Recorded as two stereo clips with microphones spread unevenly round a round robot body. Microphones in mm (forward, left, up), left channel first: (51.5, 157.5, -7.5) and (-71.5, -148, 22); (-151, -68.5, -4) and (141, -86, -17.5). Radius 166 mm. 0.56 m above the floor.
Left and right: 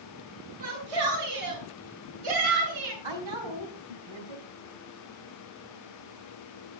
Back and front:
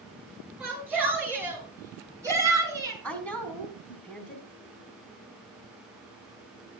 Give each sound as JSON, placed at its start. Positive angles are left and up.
{"t": 0.6, "sound": "a shout", "azimuth_deg": -90, "distance_m": 8.5}
{"t": 3.0, "sound": "a woman speaking", "azimuth_deg": -100, "distance_m": 4.5}